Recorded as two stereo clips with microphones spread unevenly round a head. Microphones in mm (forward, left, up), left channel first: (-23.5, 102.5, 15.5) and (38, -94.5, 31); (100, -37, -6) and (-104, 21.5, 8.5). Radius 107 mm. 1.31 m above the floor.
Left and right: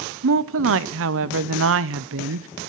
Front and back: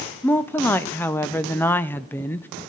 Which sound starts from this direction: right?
A woman speaking, at 0.2 s.